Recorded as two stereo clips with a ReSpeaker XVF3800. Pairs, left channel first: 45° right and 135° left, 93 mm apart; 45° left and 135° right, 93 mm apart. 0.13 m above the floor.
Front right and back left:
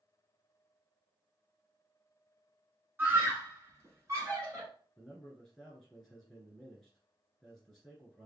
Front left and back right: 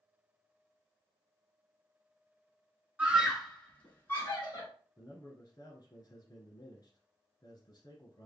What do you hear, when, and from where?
3.0 s a scream: 165° left, 1.3 m; by 4.7 s 90° left, 1.9 m
5.0 s a man speaking: 50° left, 1.6 m